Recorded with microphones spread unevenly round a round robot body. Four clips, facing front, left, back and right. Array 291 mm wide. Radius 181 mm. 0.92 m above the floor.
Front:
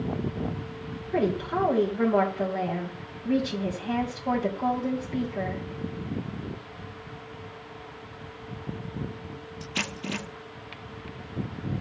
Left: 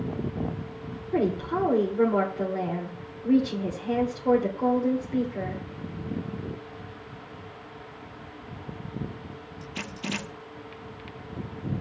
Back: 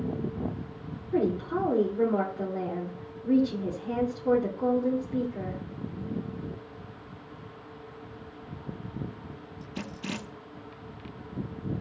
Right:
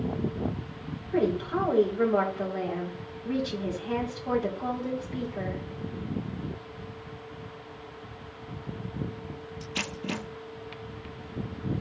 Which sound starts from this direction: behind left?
A woman speaking, at 1.1 s.